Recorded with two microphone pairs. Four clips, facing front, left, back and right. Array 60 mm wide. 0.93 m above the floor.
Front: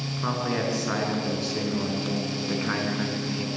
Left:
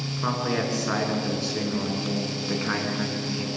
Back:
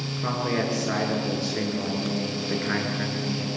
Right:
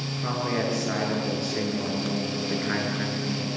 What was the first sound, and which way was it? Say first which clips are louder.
A man speaking: left 1 dB, back 1 dB; 60° left.